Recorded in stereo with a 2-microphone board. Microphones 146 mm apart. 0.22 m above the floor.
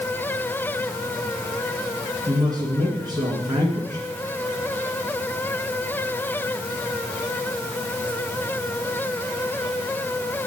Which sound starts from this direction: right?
A man speaking, at 2.3 s.